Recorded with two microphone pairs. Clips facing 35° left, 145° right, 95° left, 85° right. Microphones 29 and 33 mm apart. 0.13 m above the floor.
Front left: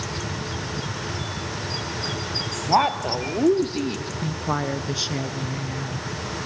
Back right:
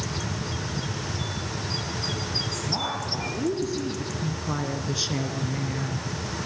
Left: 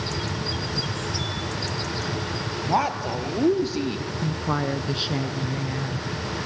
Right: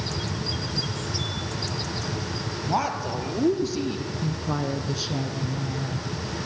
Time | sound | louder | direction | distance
2.7 | a woman speaking | front left 13 dB, left 2 dB | 25° left | 3 m